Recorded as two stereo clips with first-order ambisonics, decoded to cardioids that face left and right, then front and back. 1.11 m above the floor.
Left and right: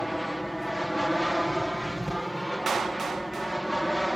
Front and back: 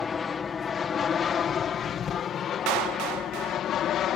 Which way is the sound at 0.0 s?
5° left.